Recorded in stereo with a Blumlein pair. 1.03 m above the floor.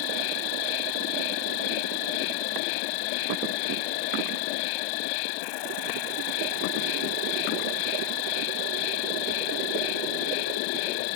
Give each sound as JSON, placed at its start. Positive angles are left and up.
{"t": 0.0, "sound": "an insect", "azimuth_deg": 45}